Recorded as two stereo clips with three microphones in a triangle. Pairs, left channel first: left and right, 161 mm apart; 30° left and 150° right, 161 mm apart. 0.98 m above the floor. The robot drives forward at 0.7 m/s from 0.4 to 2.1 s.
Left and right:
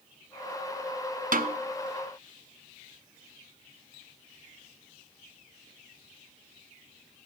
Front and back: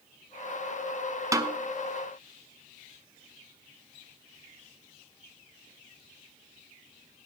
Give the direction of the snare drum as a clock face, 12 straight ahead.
3 o'clock.